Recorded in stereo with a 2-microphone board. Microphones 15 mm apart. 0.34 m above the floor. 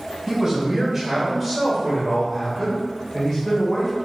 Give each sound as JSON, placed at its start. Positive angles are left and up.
{"t": 0.3, "sound": "a man speaking", "side_deg": -30, "distance_m": 1.6}